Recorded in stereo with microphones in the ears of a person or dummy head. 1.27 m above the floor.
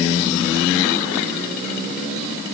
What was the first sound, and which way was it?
Only background noise.